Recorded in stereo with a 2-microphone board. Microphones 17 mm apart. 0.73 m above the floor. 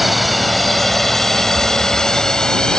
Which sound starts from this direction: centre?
A drone, at 0.0 s.